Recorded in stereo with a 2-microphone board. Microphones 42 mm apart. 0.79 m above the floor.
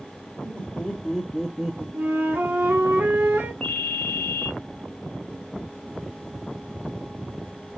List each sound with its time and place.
0.4 s laughter: 25° left (ahead or behind), 1.6 m; by 1.8 s 5° right (ahead or behind), 0.9 m
1.9 s a flute: 60° right (ahead or behind), 1.2 m
3.6 s a ringtone: 25° left (ahead or behind), 1.1 m